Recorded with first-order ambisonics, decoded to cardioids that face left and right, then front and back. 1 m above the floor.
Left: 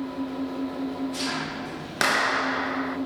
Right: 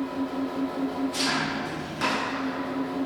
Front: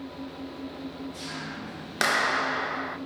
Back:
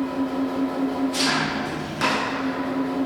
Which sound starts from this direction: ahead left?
A clap, at 2.0 s.